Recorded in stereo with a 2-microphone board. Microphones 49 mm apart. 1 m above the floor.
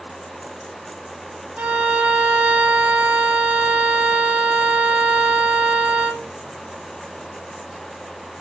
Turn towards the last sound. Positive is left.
turn(degrees=-35)  # may be behind; listen again after turning